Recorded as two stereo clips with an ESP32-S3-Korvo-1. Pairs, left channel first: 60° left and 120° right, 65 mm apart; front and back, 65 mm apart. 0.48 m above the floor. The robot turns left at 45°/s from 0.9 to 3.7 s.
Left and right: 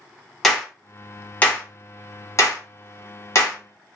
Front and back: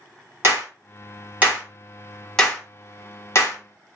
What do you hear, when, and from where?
0.4 s a clap: 145° left, 1.1 m; by 3.6 s 25° left, 1.1 m